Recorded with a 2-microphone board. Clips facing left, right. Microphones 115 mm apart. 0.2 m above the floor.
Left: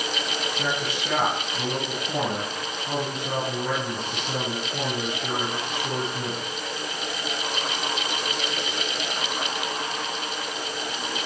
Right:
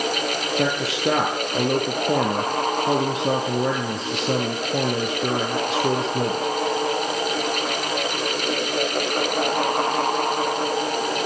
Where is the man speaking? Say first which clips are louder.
Right 8 dB; 80° right, 5.5 m.